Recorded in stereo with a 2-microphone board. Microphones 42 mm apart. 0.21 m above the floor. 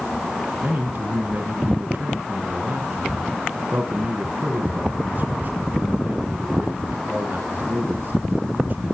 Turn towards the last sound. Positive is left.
turn(degrees=-45)  # may be behind; listen again after turning